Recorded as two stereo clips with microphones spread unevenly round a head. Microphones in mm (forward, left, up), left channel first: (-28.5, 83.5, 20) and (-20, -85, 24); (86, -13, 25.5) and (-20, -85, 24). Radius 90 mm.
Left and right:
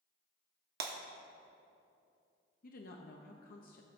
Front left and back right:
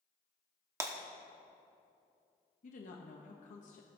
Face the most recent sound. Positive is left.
turn(degrees=60)